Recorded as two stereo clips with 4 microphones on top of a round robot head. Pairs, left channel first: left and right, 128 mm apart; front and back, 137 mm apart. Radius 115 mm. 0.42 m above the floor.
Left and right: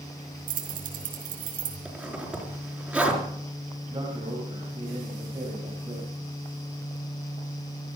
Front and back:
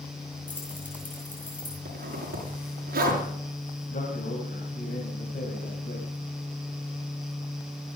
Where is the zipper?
170° right, 5.5 m.